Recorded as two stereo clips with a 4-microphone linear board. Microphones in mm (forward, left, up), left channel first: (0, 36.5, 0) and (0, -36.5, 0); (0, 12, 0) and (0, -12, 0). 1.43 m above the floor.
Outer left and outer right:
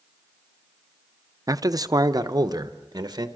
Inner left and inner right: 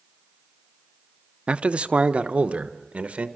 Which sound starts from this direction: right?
A man speaking, at 1.5 s.